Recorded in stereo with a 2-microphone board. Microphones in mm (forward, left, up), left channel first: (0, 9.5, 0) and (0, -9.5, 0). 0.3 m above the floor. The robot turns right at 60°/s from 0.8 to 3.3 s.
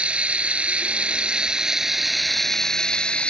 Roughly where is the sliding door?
No sliding door in this recording.